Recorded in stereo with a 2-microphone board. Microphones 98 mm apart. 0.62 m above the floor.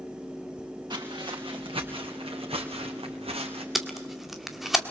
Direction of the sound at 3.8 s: Centre (ahead or behind).